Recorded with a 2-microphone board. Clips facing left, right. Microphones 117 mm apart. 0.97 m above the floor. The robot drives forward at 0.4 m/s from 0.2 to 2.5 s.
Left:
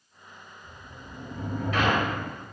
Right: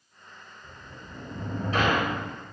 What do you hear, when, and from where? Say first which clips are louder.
0.6 s a sliding door: right 1 dB; 40° right (ahead or behind), 0.9 m; by 2.3 s 30° right (ahead or behind), 1.3 m